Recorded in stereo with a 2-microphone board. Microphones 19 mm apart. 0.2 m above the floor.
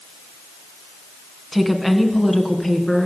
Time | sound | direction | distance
1.5 | a woman speaking | 5° right (ahead or behind) | 1.9 m